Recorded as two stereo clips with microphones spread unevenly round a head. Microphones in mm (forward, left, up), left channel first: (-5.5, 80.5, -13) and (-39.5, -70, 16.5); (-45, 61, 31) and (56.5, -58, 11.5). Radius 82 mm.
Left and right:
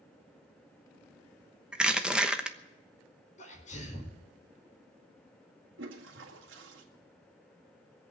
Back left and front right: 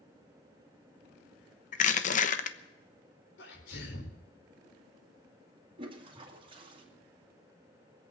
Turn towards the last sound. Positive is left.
turn(degrees=-105)